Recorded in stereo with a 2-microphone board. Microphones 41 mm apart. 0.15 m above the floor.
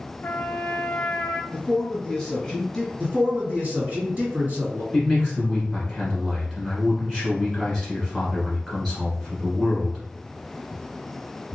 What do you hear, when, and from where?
0.2 s a trumpet: 55° left (ahead or behind), 0.5 m
1.5 s a man speaking: 15° left (ahead or behind), 1.5 m
3.0 s a man speaking: 45° right (ahead or behind), 1.9 m
4.9 s a man speaking: 10° right (ahead or behind), 1.3 m